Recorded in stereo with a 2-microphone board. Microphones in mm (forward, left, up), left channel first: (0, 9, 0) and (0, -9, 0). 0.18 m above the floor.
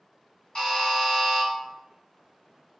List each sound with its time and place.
0.6 s a buzzer: 25° left (ahead or behind), 1.8 m